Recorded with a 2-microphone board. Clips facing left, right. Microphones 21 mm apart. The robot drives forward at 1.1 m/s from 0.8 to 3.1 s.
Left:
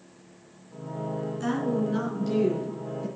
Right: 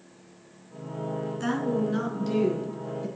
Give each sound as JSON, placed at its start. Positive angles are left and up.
{"t": 1.4, "sound": "a woman speaking", "side_deg": -25, "distance_m": 3.0}